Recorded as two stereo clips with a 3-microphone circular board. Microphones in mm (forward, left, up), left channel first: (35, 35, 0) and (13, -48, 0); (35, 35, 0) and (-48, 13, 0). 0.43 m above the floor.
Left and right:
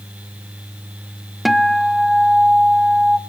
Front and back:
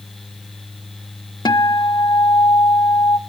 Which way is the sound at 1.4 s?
15° right.